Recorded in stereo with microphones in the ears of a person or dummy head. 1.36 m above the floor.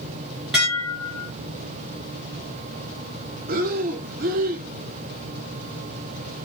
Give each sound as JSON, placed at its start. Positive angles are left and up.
{"t": 0.5, "sound": "dishes clattering", "side_deg": -5, "distance_m": 0.5}
{"t": 3.5, "sound": "breathing", "side_deg": -40, "distance_m": 0.5}